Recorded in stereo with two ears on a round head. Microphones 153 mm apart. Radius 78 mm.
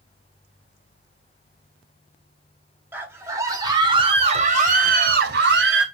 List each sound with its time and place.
2.9 s a scream: 10° right (ahead or behind), 4 m; by 5.8 s 75° right (ahead or behind), 3 m